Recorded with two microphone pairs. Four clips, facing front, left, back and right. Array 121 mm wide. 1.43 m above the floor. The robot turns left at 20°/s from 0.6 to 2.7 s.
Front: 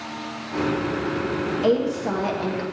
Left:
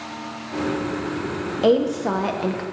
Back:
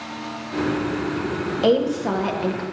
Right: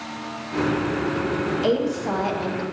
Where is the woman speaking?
135° left, 1.0 m; by 2.6 s 115° left, 1.0 m.